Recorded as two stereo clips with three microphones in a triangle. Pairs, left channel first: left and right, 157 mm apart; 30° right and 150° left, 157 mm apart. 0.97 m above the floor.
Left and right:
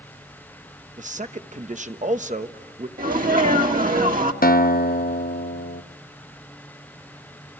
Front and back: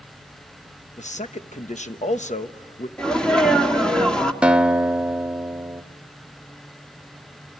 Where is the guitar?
65° left, 0.7 m.